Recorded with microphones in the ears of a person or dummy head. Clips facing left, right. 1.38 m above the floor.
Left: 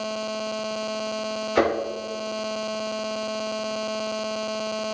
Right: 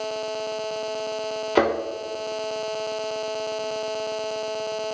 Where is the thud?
40° right (ahead or behind), 1.8 m.